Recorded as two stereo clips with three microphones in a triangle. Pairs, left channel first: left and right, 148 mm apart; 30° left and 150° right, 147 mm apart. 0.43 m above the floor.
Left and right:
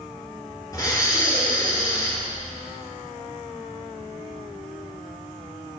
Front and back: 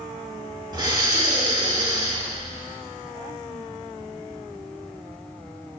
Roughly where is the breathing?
Behind left.